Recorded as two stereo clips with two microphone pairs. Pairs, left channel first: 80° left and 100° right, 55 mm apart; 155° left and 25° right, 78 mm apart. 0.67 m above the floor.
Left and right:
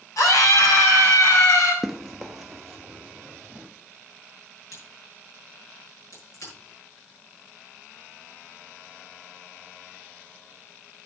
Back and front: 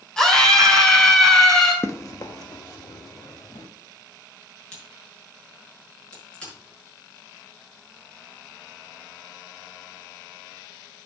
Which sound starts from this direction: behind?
Running footsteps, at 1.8 s.